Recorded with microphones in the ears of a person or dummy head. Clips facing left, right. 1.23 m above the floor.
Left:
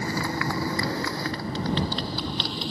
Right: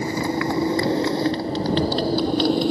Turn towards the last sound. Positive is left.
turn(degrees=-50)  # may be behind; listen again after turning